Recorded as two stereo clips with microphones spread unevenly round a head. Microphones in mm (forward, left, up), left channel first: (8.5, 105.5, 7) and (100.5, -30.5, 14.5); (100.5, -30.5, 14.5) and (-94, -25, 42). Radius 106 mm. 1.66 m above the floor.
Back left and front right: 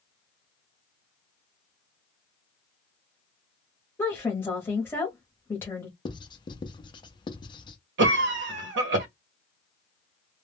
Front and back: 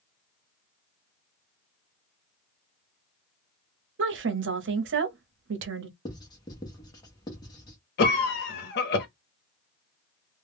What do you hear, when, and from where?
4.0 s a woman speaking: 155° right, 0.8 m
6.0 s writing: 75° left, 0.6 m
8.0 s a cough: 45° right, 0.6 m